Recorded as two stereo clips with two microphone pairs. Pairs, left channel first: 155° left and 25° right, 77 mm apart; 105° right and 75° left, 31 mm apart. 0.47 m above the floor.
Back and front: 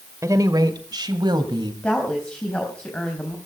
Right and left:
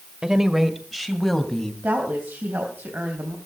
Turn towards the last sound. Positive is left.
turn(degrees=75)